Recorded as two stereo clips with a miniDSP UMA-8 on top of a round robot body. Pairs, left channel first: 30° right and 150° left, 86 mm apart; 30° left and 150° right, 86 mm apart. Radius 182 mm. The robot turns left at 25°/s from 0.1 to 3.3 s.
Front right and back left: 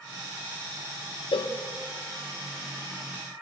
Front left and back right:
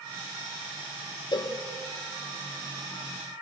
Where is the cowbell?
10° right, 1.0 m; by 1.6 s 15° right, 1.0 m.